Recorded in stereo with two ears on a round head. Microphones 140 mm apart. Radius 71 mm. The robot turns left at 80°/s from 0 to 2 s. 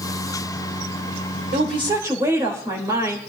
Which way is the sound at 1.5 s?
120° right.